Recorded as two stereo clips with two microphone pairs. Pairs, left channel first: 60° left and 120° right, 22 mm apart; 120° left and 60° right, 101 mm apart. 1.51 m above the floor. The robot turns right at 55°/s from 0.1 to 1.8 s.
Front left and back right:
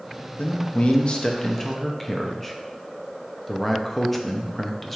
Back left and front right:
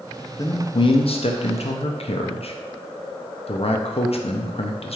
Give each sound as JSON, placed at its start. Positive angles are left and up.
{"t": 0.4, "sound": "a man speaking", "azimuth_deg": 60, "distance_m": 0.6}